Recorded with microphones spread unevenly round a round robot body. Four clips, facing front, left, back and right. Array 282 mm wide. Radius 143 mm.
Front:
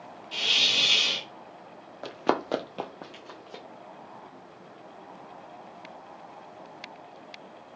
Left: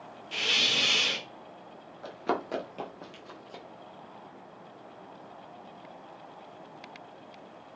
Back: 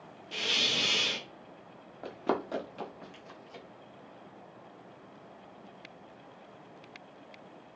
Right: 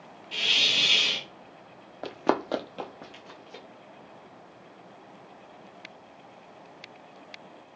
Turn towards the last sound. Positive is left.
turn(degrees=15)